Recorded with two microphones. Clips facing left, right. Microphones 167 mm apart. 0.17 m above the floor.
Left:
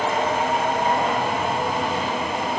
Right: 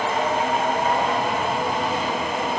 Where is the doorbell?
No doorbell in this recording.